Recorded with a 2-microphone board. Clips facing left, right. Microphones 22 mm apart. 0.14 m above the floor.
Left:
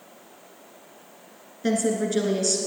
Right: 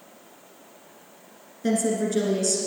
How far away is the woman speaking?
About 1.8 m.